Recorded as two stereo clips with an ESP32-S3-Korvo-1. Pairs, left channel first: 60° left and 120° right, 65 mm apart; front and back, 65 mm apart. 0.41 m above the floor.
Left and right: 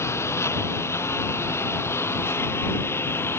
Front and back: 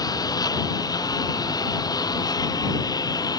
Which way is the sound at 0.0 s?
15° left.